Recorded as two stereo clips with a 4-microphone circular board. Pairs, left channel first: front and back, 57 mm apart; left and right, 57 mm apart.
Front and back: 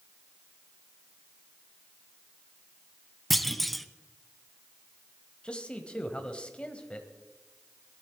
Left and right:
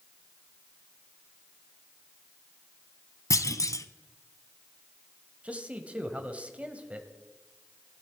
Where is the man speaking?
50° right, 1.1 m.